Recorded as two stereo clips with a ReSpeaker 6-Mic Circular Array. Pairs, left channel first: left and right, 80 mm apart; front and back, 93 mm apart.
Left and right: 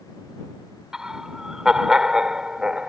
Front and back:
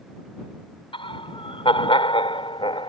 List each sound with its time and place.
0.9 s laughter: 5° right